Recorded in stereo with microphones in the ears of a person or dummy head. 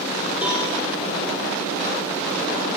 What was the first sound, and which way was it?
A cowbell, 10° right (ahead or behind).